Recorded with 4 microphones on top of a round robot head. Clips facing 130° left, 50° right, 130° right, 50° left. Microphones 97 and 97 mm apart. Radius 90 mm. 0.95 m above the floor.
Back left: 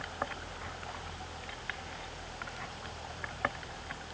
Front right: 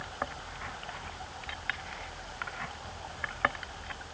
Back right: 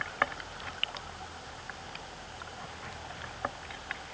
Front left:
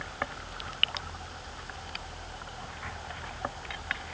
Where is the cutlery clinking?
I don't hear cutlery clinking.